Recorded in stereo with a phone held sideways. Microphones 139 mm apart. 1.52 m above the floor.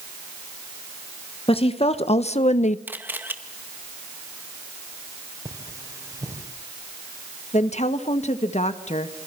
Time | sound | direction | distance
1.5 | a woman speaking | 45° left (ahead or behind) | 1.4 m
2.9 | a camera shutter | 15° right (ahead or behind) | 2 m
5.5 | cutlery clinking | 25° right (ahead or behind) | 4 m
7.5 | a woman speaking | 55° left (ahead or behind) | 1.8 m